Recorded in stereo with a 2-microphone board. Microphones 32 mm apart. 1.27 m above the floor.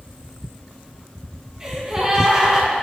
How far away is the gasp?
About 4 m.